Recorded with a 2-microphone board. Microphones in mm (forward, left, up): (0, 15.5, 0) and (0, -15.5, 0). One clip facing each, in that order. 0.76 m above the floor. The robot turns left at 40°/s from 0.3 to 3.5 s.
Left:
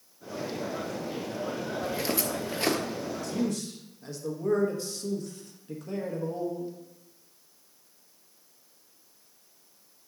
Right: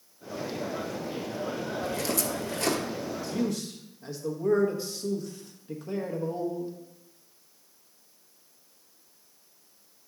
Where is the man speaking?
15° right (ahead or behind), 1.0 m; by 6.8 s 10° right (ahead or behind), 1.0 m.